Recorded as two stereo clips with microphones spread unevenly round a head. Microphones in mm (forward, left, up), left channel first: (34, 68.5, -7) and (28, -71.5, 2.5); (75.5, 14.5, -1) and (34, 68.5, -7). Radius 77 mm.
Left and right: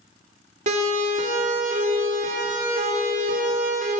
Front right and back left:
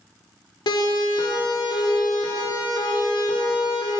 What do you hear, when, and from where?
0.7 s a siren: 55° right, 5 m; by 4.0 s 75° right, 6 m